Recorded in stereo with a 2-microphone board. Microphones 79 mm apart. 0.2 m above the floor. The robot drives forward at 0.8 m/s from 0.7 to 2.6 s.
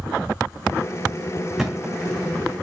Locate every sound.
1.6 s a thud: 5° right (ahead or behind), 1.6 m; by 2.2 s 10° right (ahead or behind), 1.1 m